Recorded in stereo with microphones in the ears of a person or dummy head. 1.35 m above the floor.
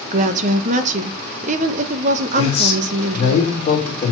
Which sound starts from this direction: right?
A woman speaking, at 0.1 s.